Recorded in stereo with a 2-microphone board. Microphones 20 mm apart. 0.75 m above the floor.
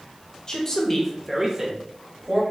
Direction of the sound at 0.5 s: 35° left (ahead or behind).